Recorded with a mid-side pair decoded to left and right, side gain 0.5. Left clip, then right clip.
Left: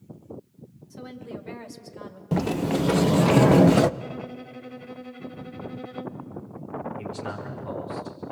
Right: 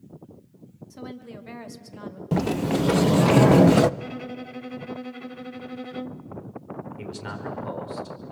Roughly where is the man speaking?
Ahead right.